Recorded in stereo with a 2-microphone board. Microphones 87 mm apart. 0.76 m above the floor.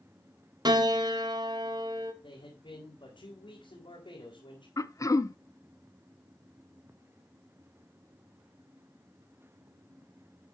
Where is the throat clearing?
40° left (ahead or behind), 0.6 m.